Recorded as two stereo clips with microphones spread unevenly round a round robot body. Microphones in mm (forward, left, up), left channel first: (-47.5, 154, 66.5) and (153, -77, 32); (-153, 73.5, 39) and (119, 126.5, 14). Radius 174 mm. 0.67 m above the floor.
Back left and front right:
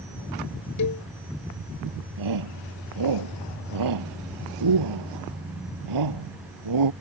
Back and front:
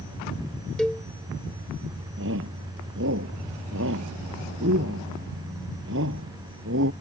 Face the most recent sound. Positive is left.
turn(degrees=-45)